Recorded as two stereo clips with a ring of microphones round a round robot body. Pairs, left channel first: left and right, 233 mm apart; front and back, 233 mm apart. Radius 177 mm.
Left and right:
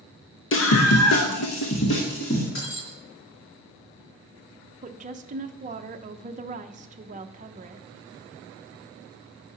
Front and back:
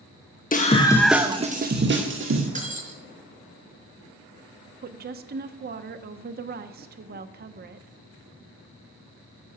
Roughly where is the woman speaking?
Behind right.